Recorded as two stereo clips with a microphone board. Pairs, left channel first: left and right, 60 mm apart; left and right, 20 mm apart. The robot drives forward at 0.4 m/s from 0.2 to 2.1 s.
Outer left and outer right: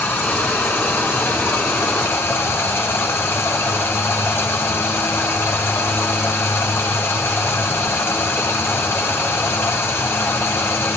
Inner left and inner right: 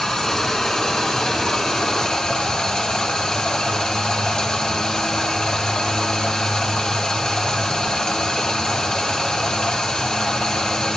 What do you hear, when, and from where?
0.0 s running water: 35° left (ahead or behind), 5 m; by 11.0 s 40° left (ahead or behind), 4.5 m